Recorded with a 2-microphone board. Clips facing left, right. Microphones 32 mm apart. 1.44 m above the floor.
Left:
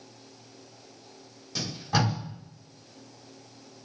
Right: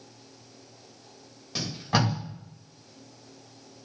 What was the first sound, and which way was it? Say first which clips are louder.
Tape being pulled: right 1 dB; 25° right (ahead or behind).